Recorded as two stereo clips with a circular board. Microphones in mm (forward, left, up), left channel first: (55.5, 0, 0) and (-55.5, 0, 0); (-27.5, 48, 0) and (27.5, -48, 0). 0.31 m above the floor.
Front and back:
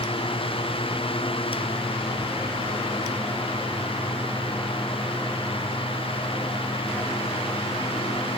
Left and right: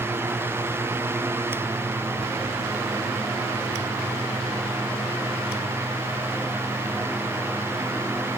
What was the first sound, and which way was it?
Only background noise.